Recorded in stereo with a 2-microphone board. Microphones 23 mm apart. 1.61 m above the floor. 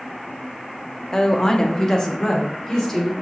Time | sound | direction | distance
1.1 | a woman speaking | 30° left (ahead or behind) | 0.6 m